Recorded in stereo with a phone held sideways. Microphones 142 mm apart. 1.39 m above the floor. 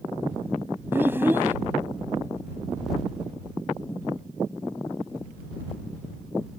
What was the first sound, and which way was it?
A child speaking, 15° right (ahead or behind).